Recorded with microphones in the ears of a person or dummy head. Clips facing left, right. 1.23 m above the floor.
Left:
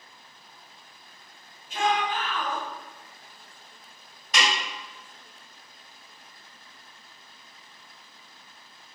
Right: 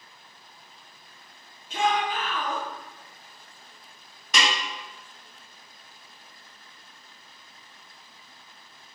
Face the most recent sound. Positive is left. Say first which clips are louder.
# even
turn(degrees=-75)  # may be behind; listen again after turning